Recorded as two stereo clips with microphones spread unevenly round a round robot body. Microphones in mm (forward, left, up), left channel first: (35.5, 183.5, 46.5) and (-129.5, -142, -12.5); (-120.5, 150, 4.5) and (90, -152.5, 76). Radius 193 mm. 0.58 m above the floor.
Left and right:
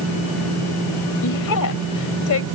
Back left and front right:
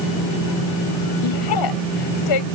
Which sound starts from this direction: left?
A woman speaking, at 1.2 s.